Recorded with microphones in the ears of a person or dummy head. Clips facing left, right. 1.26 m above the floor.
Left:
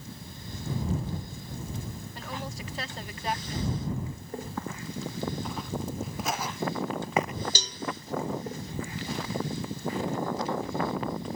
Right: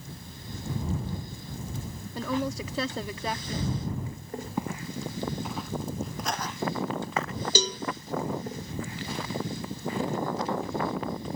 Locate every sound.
2.1 s a woman speaking: 75° right (ahead or behind)
4.6 s footsteps: 20° right (ahead or behind); by 7.3 s 15° left (ahead or behind)
7.5 s a cowbell: 60° right (ahead or behind)